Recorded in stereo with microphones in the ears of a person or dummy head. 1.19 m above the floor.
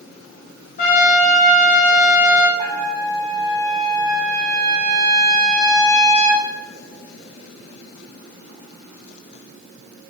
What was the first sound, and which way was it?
A trumpet, 40° left (ahead or behind).